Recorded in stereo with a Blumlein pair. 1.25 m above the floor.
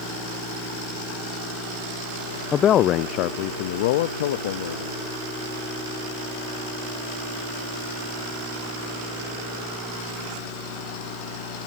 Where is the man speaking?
20° left; by 5.0 s 60° left.